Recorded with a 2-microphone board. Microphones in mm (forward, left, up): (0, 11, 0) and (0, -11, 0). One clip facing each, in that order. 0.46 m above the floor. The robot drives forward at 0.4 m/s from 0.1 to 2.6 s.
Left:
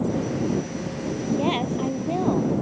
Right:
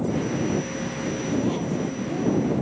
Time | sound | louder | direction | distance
1.3 | a woman speaking | left 3 dB | 60° left (ahead or behind) | ?